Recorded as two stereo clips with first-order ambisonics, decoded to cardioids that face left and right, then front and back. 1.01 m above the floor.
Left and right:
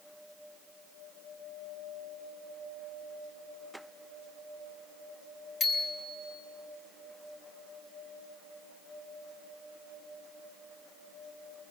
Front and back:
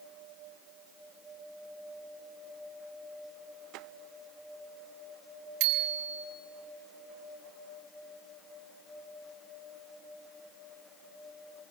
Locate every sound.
5.6 s a bicycle bell: 155° left, 3.5 m